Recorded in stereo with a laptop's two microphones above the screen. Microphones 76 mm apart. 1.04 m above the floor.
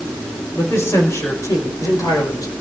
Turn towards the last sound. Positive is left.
turn(degrees=55)  # may be behind; listen again after turning